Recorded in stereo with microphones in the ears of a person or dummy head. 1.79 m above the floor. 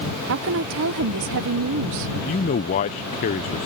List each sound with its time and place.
0.3 s a woman speaking: 60° right (ahead or behind)
2.1 s a man speaking: 25° left (ahead or behind)